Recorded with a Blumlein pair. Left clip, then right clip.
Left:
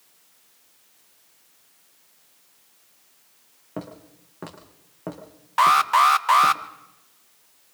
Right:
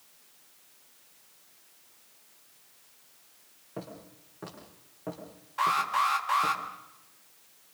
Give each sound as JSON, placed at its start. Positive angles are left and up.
{"t": 3.8, "sound": "footsteps", "azimuth_deg": 65, "distance_m": 6.5}
{"t": 5.6, "sound": "an alarm", "azimuth_deg": 40, "distance_m": 1.2}